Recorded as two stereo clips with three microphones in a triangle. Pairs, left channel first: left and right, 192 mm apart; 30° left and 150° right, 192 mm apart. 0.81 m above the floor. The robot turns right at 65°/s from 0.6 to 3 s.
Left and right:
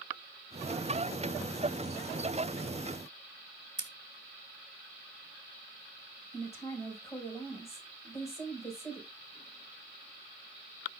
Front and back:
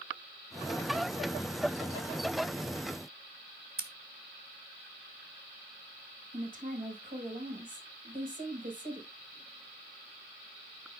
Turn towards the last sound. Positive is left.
turn(degrees=165)